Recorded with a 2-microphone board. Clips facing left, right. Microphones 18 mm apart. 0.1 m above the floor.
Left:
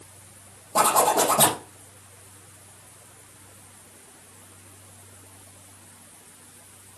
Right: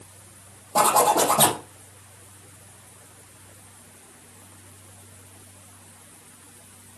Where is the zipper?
15° right (ahead or behind), 4 m.